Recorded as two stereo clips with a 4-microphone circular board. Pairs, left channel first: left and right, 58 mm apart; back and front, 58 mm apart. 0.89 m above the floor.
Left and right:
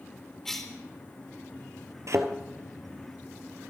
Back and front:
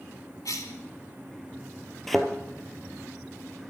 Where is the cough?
175° left, 3.5 m.